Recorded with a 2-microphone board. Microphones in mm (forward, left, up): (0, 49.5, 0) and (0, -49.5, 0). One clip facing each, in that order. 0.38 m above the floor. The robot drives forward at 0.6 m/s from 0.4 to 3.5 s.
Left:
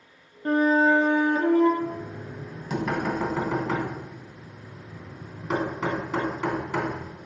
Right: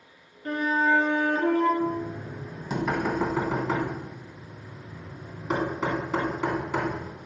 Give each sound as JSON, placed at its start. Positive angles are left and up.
{"t": 0.5, "sound": "a flute", "side_deg": 40, "distance_m": 0.6}
{"t": 1.8, "sound": "knocking", "side_deg": -10, "distance_m": 1.0}